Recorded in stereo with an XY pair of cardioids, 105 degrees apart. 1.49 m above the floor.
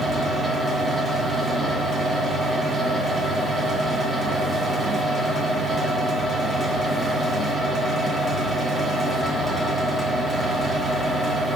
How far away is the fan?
About 0.8 m.